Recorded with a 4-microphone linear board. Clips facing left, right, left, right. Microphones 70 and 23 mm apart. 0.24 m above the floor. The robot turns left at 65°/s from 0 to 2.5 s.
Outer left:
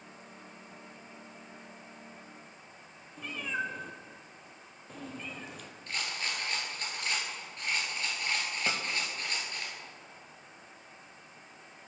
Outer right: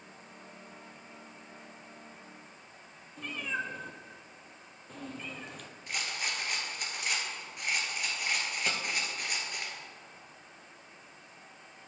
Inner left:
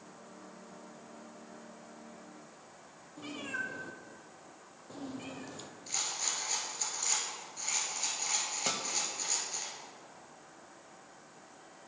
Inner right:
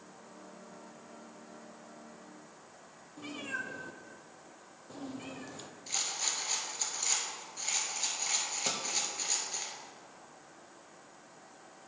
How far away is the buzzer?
I don't hear a buzzer.